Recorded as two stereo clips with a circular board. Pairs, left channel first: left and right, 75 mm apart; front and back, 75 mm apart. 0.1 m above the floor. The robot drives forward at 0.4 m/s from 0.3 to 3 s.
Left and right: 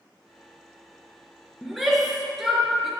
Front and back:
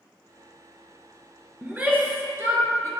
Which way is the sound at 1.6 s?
175° right.